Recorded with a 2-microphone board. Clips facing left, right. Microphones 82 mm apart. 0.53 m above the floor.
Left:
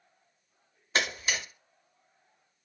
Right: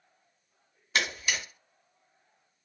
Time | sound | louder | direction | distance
0.9 | a camera shutter | even | 35° left (ahead or behind) | 0.7 m